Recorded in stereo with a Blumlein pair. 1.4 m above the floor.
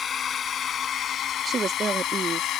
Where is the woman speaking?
20° right.